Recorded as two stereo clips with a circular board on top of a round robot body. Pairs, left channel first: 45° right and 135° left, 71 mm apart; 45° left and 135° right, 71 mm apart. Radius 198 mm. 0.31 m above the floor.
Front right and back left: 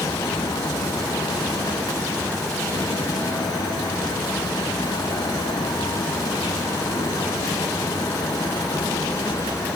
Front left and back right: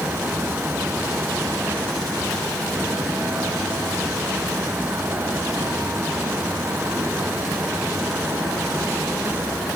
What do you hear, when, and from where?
Only background noise.